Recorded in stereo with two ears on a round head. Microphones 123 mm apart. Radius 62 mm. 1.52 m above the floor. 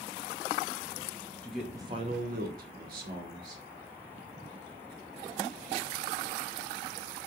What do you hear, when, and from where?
1.4 s a man speaking: 5° left (ahead or behind), 0.7 m; by 3.6 s 75° right (ahead or behind), 2 m